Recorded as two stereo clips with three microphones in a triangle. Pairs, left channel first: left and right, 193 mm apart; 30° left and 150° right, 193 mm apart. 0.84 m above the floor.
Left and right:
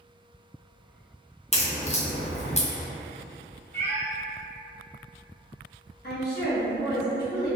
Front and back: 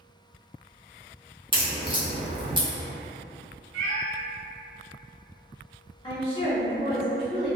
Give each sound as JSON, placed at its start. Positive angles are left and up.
{"t": 1.5, "sound": "a crack", "azimuth_deg": 150, "distance_m": 0.7}
{"t": 3.7, "sound": "a cat meowing", "azimuth_deg": -150, "distance_m": 0.7}
{"t": 6.0, "sound": "a woman speaking", "azimuth_deg": 85, "distance_m": 1.3}